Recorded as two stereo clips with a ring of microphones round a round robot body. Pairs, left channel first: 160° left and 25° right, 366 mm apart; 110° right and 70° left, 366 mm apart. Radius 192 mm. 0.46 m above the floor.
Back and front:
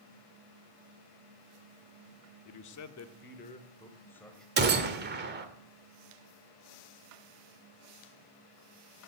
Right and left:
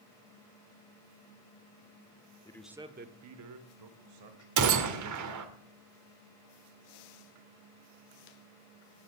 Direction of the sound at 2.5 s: 170° left.